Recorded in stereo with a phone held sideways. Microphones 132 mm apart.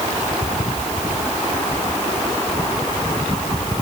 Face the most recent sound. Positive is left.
No sound to turn to.